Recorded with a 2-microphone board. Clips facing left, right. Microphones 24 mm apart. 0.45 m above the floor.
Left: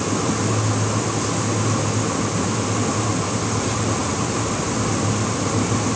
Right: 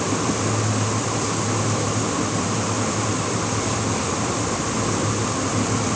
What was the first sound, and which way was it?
Only background noise.